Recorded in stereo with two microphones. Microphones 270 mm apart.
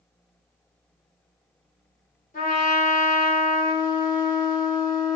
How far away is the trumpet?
About 1.5 m.